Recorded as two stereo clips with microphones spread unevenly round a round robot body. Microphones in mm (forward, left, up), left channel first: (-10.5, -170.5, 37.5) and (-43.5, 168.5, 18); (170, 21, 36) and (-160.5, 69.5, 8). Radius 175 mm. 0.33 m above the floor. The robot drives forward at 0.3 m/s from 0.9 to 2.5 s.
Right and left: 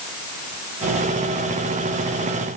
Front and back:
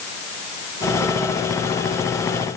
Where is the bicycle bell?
No bicycle bell in this recording.